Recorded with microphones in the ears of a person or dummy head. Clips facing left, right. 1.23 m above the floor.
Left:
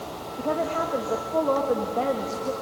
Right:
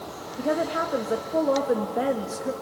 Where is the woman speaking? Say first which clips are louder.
Right 1 dB; 15° right (ahead or behind), 1.7 m.